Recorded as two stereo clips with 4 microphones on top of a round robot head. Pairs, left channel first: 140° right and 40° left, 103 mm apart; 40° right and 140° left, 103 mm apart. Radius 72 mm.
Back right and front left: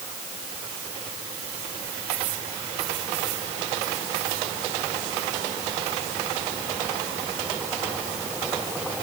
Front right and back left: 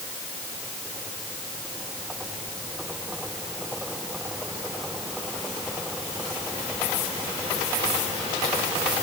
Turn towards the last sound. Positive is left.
No sound to turn to.